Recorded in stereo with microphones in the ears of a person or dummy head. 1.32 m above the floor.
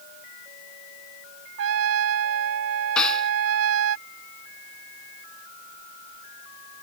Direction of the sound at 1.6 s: 70° right (ahead or behind).